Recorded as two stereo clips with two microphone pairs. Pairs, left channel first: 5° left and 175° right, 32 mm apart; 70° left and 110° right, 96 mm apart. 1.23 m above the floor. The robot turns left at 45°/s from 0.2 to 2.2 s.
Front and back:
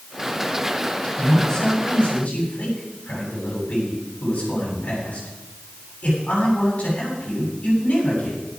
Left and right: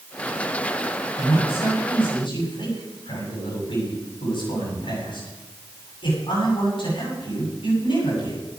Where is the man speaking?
95° left, 8 m; by 8.4 s 50° left, 8 m.